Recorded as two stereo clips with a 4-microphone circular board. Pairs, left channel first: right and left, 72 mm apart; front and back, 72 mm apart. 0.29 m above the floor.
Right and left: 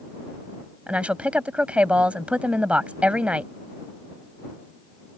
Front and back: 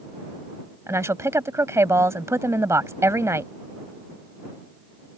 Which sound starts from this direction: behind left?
A woman speaking, at 0.9 s.